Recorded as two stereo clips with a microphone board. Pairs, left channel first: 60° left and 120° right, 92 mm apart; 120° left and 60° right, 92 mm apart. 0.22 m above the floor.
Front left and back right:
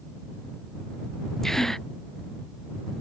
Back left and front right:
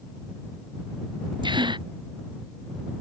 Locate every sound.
1.4 s a gasp: 25° right